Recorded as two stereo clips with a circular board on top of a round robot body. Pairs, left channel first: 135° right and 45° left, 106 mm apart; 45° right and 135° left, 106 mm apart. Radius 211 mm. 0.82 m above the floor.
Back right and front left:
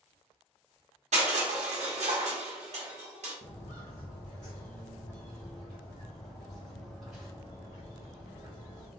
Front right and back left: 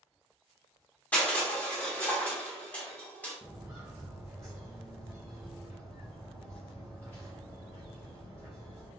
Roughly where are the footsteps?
Behind right.